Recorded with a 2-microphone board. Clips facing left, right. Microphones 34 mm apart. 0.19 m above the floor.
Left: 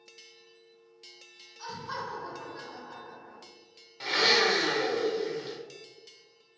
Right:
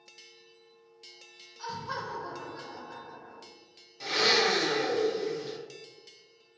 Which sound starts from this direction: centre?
Laughter, at 1.6 s.